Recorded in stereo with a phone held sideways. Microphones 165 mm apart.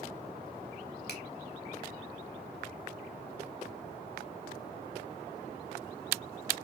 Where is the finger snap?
85° left, 2 m.